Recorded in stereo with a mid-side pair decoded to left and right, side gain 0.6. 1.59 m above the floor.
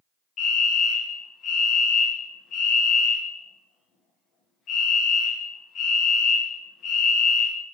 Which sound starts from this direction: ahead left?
A fire alarm, at 0.4 s.